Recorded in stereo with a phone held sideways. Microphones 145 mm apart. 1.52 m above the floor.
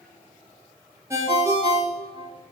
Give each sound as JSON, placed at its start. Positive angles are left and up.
{"t": 1.1, "sound": "a ringtone", "side_deg": -20, "distance_m": 1.4}